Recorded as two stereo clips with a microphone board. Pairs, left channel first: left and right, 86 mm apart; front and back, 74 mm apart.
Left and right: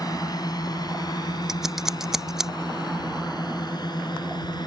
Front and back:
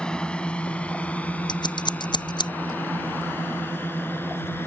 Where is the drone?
75° left; by 4.7 s 60° left.